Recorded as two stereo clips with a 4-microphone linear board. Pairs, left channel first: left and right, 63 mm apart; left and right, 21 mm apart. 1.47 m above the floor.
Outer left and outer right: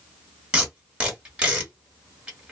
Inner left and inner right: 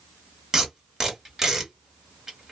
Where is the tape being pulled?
15° right (ahead or behind), 1.3 m.